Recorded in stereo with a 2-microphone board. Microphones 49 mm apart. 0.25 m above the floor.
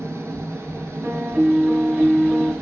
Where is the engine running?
65° right (ahead or behind), 1.6 m.